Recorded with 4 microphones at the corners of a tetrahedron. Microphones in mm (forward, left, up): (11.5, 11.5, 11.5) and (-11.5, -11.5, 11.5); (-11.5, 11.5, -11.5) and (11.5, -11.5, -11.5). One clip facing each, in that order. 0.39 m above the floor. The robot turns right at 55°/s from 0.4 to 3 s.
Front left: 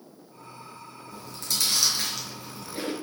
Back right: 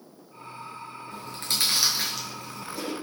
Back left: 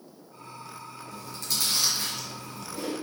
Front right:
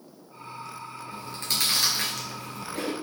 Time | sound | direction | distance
1.1 | chewing | 105° right | 4.5 m